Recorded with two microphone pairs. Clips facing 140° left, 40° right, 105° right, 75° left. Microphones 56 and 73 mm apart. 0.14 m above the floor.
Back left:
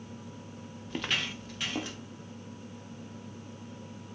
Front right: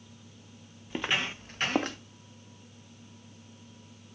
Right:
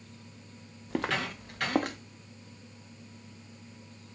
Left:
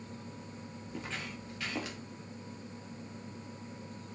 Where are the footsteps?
120° right, 0.7 m; by 2.0 s 70° right, 1.2 m.